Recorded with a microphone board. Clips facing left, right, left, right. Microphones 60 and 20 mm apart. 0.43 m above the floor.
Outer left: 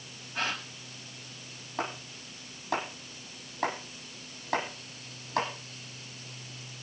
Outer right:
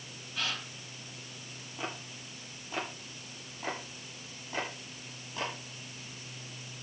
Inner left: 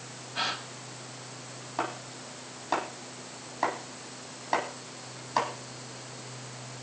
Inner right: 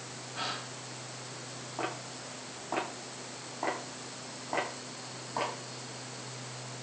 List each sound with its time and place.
0.3 s a gasp: 45° left (ahead or behind), 3 m
1.8 s chopping: 90° left, 9.5 m